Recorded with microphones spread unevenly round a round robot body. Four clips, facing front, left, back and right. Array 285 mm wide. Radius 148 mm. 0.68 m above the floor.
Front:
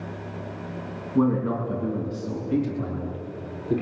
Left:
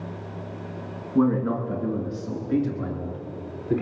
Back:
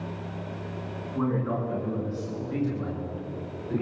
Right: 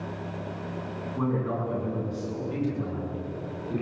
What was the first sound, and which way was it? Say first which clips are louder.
A man speaking: left 7 dB, front 6 dB; 40° left.